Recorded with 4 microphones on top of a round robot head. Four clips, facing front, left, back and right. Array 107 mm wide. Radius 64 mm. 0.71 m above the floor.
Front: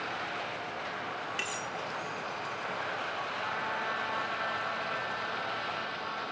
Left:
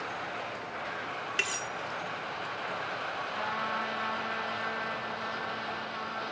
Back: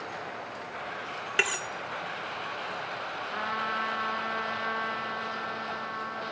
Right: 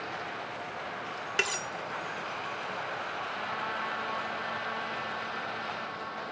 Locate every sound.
1.4 s cutlery clinking: 150° right, 0.9 m
3.3 s a trumpet: 170° left, 4 m